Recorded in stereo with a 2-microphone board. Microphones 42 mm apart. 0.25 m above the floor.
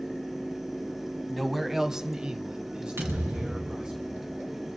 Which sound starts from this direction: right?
A thud, at 3.0 s.